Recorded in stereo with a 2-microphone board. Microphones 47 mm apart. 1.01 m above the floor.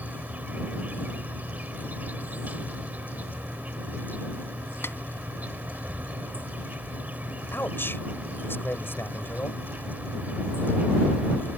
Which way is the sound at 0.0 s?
35° right (ahead or behind).